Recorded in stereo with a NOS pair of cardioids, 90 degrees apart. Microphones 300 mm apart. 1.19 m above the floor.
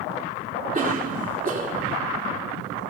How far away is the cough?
About 3.5 m.